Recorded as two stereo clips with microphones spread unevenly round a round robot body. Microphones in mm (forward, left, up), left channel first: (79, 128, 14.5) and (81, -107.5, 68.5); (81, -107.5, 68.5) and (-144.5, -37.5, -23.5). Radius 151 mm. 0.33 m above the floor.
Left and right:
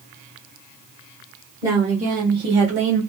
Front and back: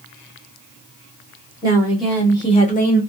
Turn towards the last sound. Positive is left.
turn(degrees=-80)